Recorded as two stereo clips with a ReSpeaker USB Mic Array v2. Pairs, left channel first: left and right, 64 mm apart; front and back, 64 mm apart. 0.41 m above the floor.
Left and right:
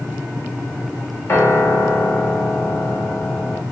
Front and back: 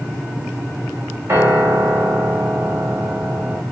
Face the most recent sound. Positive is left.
turn(degrees=135)